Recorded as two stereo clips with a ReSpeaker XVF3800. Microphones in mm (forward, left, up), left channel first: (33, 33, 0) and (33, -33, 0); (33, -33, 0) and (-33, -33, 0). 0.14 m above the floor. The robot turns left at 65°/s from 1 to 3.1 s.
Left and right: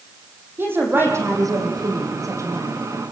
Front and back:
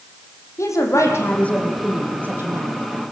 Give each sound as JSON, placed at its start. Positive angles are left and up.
{"t": 0.6, "sound": "a woman speaking", "azimuth_deg": -35, "distance_m": 6.0}